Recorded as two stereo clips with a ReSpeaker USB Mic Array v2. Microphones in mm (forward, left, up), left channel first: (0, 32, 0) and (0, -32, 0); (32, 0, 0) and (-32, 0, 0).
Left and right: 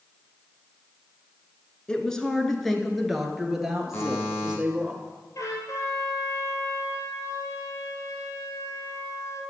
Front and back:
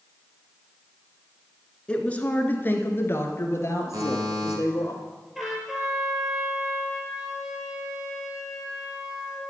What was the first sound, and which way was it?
A woman speaking, 40° left.